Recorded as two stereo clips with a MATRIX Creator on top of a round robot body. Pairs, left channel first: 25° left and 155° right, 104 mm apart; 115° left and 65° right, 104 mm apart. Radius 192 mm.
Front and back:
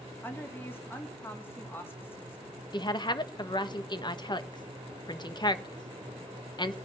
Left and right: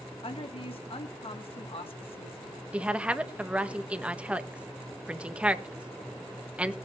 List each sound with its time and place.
0.2 s a woman speaking: 90° left, 2 m
2.7 s a woman speaking: 5° left, 1.4 m